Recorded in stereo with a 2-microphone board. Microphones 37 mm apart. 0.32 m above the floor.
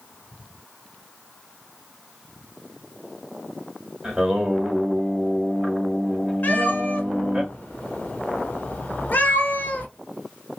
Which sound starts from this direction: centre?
Singing, at 4.0 s.